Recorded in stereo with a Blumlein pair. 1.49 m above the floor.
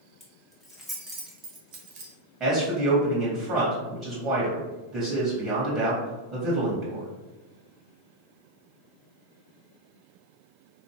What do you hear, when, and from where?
0.2 s keys jangling: 5° left, 1.6 m; by 2.1 s 50° right, 1.1 m
2.4 s a man speaking: 20° right, 1.9 m